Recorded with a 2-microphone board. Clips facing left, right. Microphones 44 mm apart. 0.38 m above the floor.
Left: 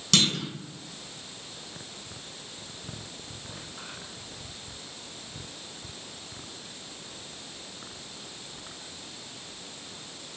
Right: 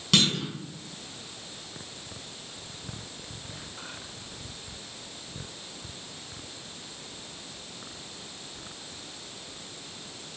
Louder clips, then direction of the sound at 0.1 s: Right 1 dB; 10° right (ahead or behind).